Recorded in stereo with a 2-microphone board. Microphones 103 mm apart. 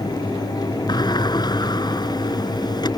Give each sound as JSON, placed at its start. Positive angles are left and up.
{"t": 0.9, "sound": "a sliding door", "side_deg": 45}